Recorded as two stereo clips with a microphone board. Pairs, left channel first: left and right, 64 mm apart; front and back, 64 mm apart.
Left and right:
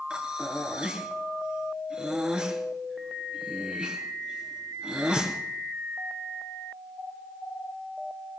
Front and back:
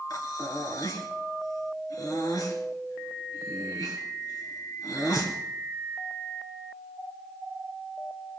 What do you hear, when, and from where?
0.1 s breathing: 15° right, 3 m